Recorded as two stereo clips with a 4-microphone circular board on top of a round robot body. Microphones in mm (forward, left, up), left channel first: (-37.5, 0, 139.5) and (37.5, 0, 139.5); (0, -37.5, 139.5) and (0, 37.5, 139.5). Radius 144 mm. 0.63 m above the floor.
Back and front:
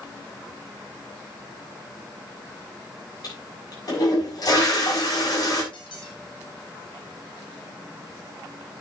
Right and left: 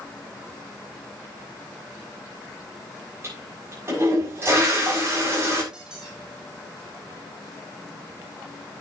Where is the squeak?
170° left, 2.5 m.